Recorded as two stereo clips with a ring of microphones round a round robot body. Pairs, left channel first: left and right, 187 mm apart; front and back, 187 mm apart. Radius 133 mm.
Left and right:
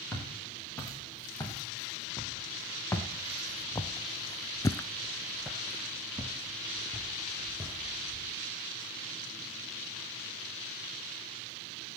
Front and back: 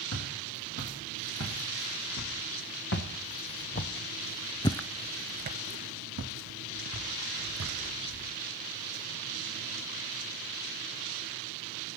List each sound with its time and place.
0.1 s footsteps: 15° left, 6 m; by 8.3 s 170° right, 4.5 m